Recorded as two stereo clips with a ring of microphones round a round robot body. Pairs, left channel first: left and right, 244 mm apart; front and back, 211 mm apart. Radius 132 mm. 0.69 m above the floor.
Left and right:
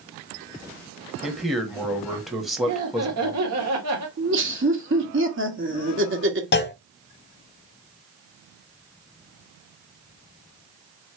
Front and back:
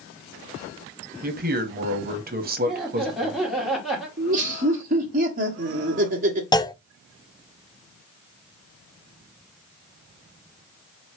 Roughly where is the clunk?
Ahead left.